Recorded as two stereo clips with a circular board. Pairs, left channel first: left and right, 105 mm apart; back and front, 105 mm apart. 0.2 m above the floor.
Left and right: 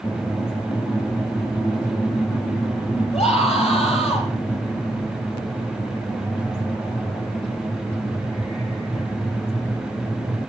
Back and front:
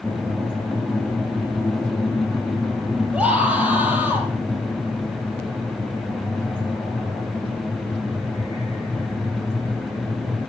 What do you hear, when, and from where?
3.1 s a scream: 80° left, 6 m; by 4.3 s 75° left, 7 m